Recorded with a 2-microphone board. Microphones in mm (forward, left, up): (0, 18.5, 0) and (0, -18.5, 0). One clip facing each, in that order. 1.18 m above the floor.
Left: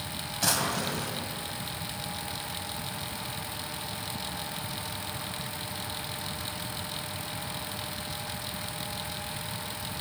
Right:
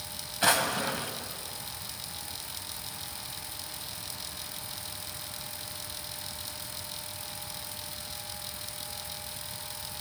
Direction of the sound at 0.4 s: 30° right (ahead or behind).